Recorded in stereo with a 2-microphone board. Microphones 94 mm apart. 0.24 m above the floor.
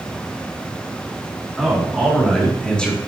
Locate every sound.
1.6 s a man speaking: centre (ahead or behind), 3 m; by 3.0 s 10° left (ahead or behind), 3 m